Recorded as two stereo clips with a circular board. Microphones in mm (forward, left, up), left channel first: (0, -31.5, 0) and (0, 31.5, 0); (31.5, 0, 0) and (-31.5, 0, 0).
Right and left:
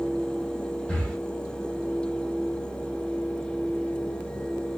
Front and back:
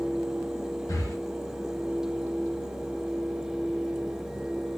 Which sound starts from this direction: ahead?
Breathing, at 0.9 s.